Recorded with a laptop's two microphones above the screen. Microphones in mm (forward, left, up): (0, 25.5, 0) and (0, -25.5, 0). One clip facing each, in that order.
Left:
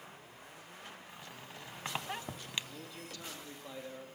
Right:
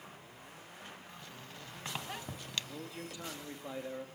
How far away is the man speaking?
About 2.0 m.